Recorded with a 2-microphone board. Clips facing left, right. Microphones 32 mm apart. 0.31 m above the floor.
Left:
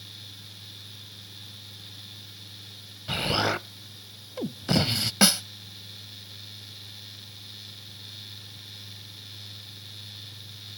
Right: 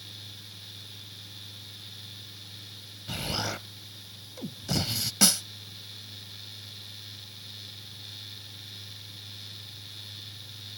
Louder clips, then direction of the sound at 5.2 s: Left 3 dB; 30° left (ahead or behind).